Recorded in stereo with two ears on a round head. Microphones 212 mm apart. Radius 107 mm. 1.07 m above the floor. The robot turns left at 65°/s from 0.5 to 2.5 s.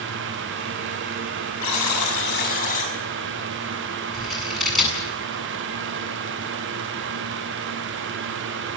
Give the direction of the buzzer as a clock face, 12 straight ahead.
9 o'clock.